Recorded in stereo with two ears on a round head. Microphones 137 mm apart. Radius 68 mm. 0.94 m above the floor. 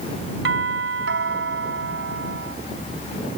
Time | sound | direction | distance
0.5 | a doorbell | 85° right | ?